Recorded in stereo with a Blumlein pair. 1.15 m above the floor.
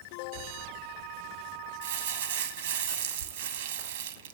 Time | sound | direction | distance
1.8 | crumpling | 60° right | 1.3 m